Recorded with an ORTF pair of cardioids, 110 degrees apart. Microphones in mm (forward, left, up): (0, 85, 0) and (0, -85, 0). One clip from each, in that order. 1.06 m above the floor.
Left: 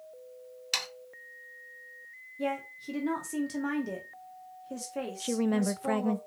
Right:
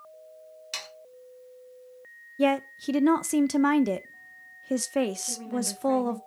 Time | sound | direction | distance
0.7 | sawing | 30° left | 0.8 m
2.4 | a woman speaking | 50° right | 0.6 m
5.2 | a woman speaking | 65° left | 0.6 m